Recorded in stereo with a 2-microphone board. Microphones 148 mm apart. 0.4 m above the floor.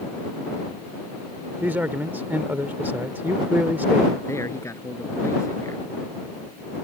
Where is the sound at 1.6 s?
15° right (ahead or behind).